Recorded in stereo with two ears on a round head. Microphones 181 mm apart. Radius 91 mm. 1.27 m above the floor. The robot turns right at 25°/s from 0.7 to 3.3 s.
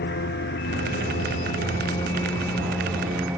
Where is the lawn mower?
125° left; by 3.4 s 170° right.